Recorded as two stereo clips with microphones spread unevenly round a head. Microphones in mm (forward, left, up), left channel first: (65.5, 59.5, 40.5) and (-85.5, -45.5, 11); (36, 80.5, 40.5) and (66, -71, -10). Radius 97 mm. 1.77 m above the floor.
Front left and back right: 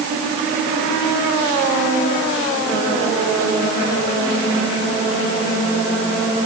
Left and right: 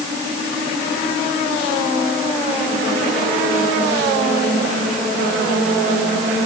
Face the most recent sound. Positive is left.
No sound to turn to.